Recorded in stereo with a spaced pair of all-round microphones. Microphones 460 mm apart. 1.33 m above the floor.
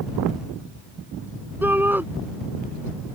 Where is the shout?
5° right (ahead or behind).